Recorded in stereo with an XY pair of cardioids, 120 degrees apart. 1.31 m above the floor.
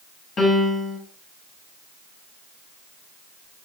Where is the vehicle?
I don't hear a vehicle.